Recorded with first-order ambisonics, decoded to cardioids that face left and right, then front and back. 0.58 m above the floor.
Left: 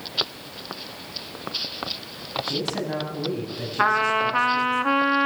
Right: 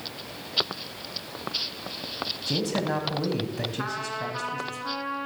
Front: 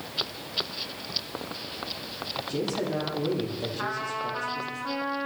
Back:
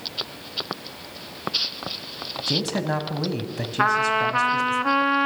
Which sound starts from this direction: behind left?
A trumpet, at 3.8 s.